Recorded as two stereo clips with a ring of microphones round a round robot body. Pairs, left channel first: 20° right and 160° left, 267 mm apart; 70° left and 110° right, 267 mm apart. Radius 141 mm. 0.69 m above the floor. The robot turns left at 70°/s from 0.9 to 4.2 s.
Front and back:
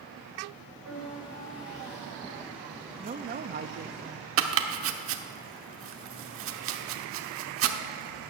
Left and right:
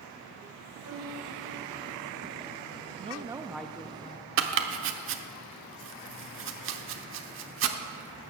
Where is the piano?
160° right, 3.5 m; by 2.4 s 95° left, 3.5 m.